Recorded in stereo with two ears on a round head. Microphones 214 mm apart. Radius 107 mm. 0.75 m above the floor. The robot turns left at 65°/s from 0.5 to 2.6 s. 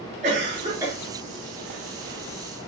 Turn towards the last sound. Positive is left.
turn(degrees=80)